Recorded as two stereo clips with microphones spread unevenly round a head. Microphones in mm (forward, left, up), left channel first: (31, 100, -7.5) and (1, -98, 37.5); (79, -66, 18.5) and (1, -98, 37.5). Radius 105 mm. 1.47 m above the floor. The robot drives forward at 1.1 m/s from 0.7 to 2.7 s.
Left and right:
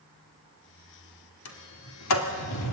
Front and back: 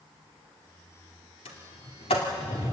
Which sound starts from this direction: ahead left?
A sliding door, at 1.4 s.